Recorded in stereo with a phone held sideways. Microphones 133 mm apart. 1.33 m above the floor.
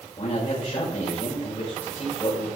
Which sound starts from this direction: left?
A man speaking, at 0.2 s.